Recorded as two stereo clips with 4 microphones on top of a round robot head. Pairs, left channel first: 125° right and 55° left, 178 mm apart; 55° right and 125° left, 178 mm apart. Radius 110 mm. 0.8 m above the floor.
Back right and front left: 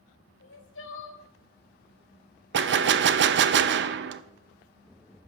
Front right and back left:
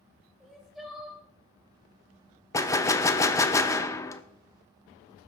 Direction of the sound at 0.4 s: 145° right.